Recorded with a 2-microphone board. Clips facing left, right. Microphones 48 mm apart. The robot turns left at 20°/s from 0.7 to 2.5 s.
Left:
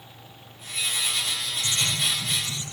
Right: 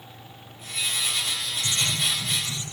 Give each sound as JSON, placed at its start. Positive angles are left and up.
{"t": 1.6, "sound": "writing", "side_deg": -40, "distance_m": 8.5}